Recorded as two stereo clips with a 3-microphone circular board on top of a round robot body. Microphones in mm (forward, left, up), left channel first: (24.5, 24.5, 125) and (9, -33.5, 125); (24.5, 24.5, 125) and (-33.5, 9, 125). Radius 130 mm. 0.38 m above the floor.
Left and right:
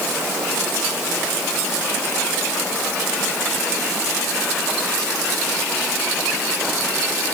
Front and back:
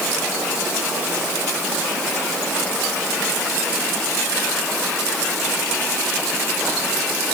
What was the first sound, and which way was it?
Only background noise.